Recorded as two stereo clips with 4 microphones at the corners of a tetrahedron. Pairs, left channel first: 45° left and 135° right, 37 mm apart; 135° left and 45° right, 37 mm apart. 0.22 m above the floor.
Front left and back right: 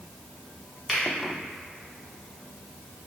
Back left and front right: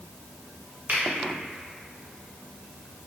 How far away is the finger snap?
About 1.3 m.